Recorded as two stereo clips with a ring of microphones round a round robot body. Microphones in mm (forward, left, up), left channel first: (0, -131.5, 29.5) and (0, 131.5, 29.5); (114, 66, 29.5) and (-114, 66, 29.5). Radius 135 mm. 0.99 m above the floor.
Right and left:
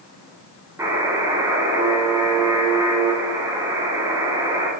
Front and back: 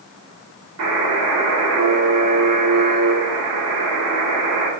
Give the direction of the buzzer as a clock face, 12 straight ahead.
6 o'clock.